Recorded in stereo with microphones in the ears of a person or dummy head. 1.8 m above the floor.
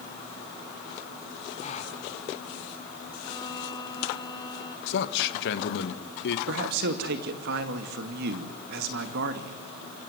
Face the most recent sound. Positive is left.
turn(degrees=-60)  # may be behind; listen again after turning